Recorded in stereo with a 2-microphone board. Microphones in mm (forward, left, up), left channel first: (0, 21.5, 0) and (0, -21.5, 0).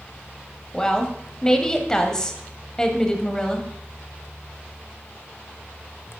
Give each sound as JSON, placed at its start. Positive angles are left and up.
{"t": 0.7, "sound": "a woman speaking", "side_deg": 15, "distance_m": 1.4}